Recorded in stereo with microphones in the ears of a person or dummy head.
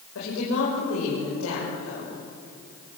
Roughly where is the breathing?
I don't hear breathing.